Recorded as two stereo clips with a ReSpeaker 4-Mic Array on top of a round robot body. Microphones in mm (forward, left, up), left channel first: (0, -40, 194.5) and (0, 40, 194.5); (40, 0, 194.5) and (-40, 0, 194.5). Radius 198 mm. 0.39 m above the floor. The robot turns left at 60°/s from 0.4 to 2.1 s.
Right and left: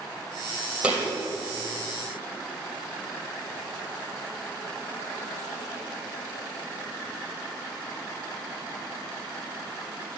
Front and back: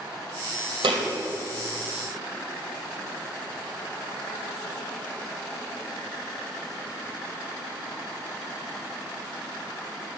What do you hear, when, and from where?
0.8 s a thud: 170° left, 2.5 m; by 1.1 s 155° left, 2.5 m